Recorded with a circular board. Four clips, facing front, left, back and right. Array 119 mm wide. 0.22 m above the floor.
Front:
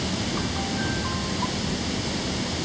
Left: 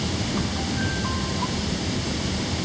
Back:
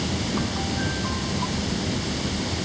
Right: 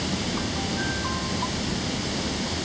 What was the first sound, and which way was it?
Only background noise.